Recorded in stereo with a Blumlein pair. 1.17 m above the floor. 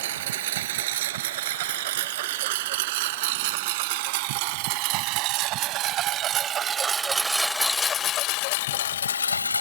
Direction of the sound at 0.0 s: 55° right.